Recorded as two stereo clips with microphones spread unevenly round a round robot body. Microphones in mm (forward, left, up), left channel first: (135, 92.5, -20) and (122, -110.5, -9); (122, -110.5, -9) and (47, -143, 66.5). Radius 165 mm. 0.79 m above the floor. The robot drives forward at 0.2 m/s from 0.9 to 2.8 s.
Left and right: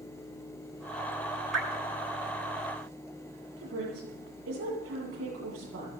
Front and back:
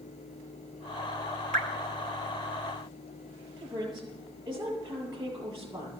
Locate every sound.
1.5 s dripping: 175° left, 0.9 m
3.6 s a woman speaking: 125° right, 8 m